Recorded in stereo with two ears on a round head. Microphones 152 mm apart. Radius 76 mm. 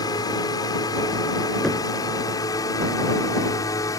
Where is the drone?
25° left (ahead or behind); by 4.0 s 20° left (ahead or behind).